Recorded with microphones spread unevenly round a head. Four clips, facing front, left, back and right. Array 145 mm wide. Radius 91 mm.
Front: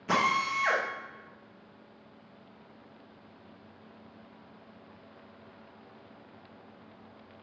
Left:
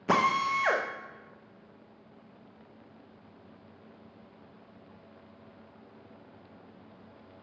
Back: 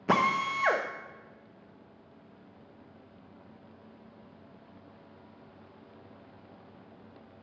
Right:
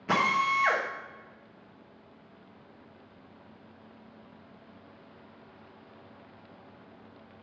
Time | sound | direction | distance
0.1 | a drill | 145° left | 0.8 m